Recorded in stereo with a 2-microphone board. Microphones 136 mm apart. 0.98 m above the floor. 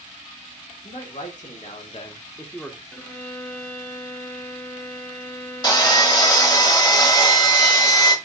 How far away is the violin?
About 1.0 m.